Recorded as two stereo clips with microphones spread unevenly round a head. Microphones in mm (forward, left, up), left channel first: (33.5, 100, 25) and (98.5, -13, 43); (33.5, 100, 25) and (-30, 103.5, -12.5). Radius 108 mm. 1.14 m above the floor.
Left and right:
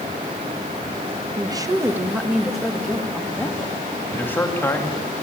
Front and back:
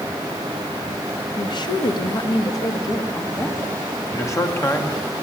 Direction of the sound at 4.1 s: 45° left.